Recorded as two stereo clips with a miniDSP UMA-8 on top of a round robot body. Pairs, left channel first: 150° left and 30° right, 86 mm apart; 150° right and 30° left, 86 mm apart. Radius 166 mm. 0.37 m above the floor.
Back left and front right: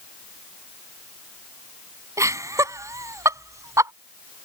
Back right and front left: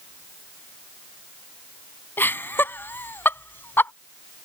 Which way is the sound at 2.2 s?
85° right.